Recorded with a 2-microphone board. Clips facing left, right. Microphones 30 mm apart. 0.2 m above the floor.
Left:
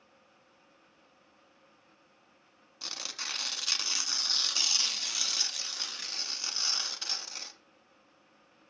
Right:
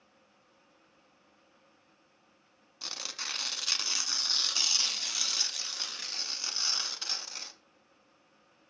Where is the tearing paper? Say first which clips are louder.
Even; centre (ahead or behind), 0.8 m.